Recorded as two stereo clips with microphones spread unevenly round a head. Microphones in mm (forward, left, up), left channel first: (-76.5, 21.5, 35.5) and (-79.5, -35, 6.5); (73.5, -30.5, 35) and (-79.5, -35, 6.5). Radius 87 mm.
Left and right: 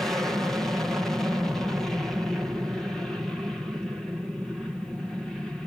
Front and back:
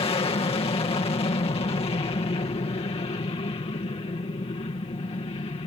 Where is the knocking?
I don't hear knocking.